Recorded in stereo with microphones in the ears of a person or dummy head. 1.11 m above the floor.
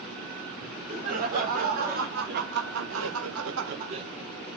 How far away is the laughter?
About 3.5 m.